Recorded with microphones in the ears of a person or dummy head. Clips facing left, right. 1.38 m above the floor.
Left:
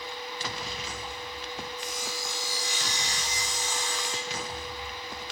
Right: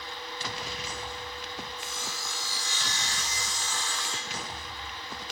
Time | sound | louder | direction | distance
1.8 | sawing | left 4 dB | 15° left (ahead or behind) | 3 m